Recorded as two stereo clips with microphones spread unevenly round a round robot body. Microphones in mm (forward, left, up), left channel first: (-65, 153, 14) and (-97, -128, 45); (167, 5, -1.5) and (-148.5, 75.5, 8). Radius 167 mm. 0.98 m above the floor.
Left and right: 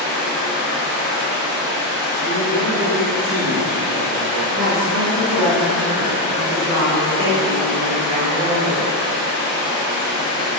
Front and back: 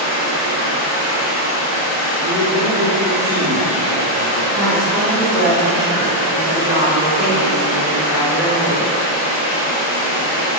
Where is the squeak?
No squeak in this recording.